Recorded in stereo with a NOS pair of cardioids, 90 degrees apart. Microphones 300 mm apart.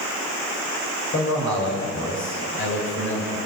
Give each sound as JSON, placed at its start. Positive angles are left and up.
{"t": 1.1, "sound": "a man speaking", "azimuth_deg": 40, "distance_m": 5.0}